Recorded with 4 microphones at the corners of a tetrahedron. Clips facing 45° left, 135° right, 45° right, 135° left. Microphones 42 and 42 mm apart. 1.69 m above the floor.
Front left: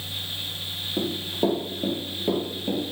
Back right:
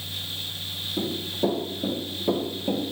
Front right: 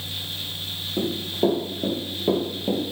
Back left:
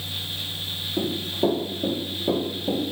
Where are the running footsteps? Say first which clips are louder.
Front left 1 dB, front right 1 dB; 15° left, 2.5 m; by 2.9 s 50° right, 2.5 m.